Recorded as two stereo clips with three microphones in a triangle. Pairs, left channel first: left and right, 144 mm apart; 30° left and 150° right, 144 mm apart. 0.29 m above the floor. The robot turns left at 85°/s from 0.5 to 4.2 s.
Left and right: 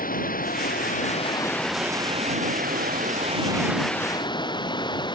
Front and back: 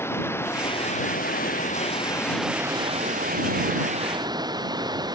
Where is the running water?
105° left; by 5.2 s 150° left.